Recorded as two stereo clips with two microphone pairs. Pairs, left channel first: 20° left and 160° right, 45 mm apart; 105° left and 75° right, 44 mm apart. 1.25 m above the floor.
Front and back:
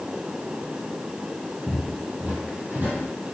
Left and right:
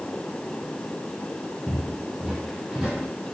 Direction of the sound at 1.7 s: 170° right.